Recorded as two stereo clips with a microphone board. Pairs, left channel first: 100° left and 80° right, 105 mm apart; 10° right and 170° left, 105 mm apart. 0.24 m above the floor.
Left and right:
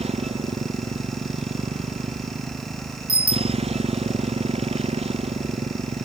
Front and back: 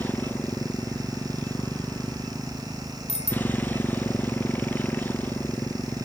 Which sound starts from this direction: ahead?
A bicycle bell, at 3.1 s.